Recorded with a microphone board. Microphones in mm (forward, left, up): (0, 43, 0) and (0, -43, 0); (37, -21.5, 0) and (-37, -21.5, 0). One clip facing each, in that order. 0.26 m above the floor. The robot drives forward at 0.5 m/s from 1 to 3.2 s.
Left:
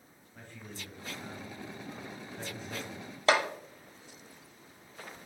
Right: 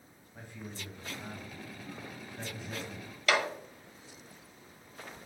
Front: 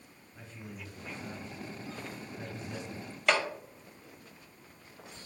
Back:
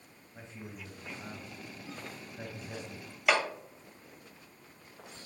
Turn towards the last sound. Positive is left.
turn(degrees=100)